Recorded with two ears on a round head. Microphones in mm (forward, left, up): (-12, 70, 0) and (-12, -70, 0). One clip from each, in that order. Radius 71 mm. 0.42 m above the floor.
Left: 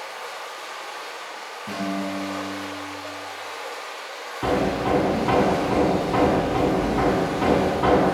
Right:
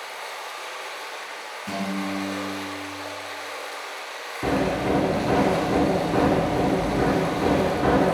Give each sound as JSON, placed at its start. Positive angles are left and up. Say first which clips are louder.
{"t": 0.0, "sound": "running water", "louder": "even", "side_deg": -40, "distance_m": 1.8}
{"t": 1.7, "sound": "a guitar", "louder": "left 1 dB", "side_deg": -70, "distance_m": 3.0}
{"t": 4.4, "sound": "hammering", "louder": "left 1 dB", "side_deg": 75, "distance_m": 1.8}